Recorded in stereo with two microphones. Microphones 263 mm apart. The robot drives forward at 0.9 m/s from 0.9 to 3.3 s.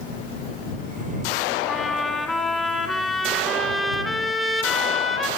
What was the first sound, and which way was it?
A trumpet, centre (ahead or behind).